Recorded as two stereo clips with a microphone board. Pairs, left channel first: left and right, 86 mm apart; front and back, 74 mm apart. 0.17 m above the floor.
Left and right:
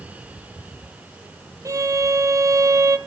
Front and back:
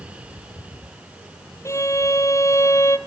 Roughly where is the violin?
Ahead right.